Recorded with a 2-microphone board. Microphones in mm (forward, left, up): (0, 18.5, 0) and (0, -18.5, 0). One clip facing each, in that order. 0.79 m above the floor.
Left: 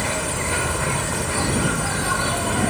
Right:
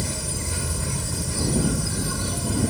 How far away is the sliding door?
No sliding door in this recording.